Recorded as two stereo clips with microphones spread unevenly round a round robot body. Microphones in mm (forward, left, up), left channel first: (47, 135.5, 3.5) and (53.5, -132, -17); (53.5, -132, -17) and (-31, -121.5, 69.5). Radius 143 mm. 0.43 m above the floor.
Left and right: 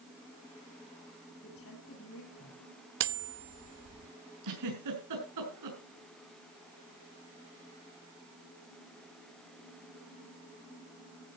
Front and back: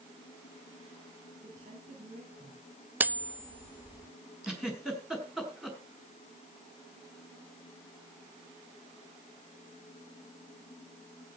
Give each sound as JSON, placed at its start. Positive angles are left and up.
{"t": 1.4, "sound": "a woman speaking", "azimuth_deg": 145, "distance_m": 7.0}
{"t": 3.0, "sound": "cutlery clinking", "azimuth_deg": -90, "distance_m": 0.7}
{"t": 4.4, "sound": "a giggle", "azimuth_deg": -90, "distance_m": 6.0}